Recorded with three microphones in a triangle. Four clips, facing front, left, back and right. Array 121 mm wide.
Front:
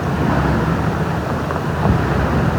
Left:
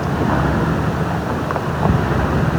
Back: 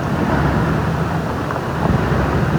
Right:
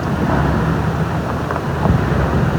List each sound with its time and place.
Only background noise.